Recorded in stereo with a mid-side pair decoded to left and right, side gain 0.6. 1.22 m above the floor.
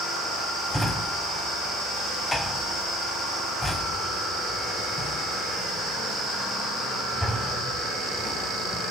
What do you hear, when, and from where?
0.7 s a drawer: 10° left, 2.0 m